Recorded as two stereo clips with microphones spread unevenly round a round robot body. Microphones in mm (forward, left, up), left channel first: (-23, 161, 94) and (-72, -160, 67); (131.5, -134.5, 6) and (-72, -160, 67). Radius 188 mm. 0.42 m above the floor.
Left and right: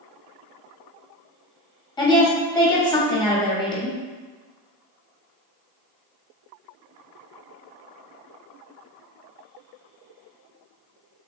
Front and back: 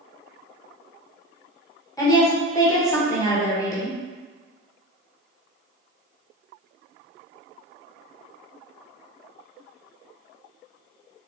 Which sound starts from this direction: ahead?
A woman speaking, at 2.0 s.